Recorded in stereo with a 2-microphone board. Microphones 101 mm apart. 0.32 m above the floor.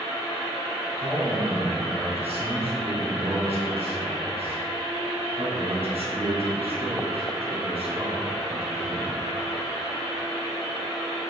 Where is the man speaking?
70° right (ahead or behind), 3 m.